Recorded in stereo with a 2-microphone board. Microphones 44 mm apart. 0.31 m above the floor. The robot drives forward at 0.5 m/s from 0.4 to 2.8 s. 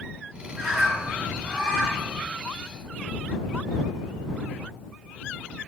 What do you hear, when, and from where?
0.5 s a bird: 10° right (ahead or behind), 2 m; by 2.2 s 5° right (ahead or behind), 3 m